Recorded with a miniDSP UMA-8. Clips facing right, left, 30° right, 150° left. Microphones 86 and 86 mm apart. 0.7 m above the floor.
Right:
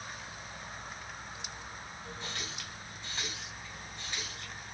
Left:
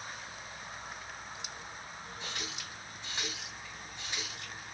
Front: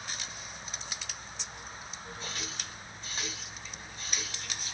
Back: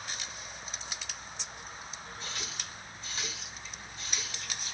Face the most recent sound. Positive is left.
turn(degrees=20)